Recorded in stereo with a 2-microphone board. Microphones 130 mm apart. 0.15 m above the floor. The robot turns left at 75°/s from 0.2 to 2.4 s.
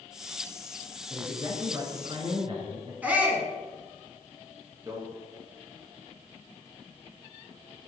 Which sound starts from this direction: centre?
A shout, at 3.0 s.